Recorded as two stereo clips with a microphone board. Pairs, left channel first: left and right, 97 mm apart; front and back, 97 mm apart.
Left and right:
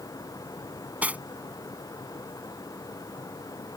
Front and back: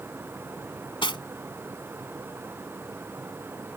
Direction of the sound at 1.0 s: 15° right.